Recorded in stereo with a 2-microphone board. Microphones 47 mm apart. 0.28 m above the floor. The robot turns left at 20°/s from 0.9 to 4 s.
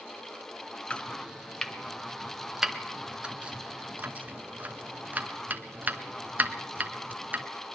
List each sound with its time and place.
0.9 s chopping: 25° left (ahead or behind), 1.2 m; by 7.5 s 35° right (ahead or behind), 1.2 m